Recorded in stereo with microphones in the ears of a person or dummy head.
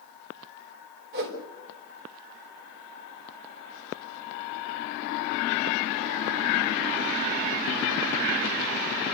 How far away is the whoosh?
About 4 m.